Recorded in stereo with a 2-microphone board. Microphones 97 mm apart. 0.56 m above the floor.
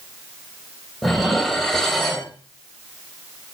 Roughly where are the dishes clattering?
Centre.